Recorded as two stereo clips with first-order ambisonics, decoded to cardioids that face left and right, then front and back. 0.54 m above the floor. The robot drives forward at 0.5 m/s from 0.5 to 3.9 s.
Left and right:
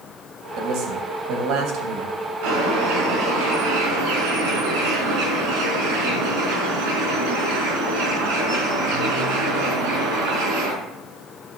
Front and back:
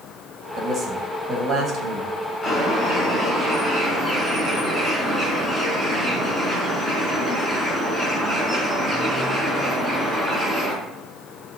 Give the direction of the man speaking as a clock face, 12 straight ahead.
3 o'clock.